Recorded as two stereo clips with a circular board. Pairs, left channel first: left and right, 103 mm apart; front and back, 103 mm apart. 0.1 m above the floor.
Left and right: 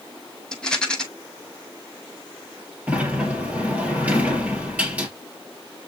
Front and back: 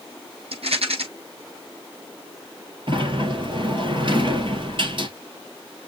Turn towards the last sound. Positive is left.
turn(degrees=-165)